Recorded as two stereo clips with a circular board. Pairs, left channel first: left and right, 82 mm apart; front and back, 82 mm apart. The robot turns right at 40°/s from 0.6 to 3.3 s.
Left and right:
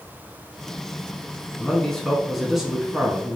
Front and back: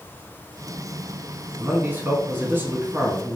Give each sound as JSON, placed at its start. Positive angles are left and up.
{"t": 1.6, "sound": "a man speaking", "azimuth_deg": 150, "distance_m": 1.1}